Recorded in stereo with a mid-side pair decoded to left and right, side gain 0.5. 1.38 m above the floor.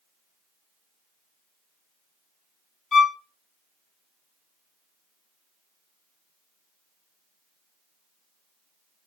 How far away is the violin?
About 0.8 m.